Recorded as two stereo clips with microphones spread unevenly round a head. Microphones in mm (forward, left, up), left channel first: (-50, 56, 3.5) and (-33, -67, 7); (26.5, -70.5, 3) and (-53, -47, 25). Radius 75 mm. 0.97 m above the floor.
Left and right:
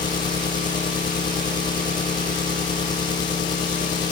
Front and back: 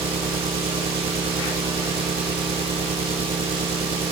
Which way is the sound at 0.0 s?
155° left.